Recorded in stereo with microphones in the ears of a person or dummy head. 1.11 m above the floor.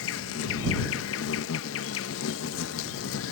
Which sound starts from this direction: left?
An insect, at 0.0 s.